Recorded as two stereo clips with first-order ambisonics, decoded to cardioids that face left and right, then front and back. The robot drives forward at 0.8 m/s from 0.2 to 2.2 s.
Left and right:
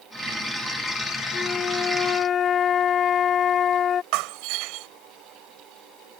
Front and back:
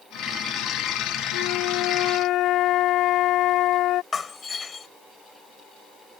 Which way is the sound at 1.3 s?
20° left.